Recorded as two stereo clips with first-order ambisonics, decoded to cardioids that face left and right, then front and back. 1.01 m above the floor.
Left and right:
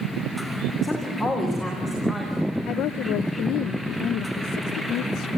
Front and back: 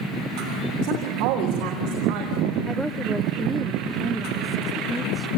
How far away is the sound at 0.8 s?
About 3 m.